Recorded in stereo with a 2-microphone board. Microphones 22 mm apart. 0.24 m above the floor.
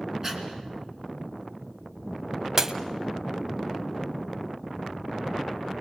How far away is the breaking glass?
About 0.7 m.